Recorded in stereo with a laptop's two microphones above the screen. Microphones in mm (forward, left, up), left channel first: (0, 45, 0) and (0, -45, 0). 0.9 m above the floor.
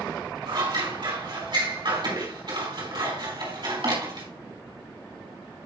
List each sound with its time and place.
0.5 s scissors: 60° right (ahead or behind), 4 m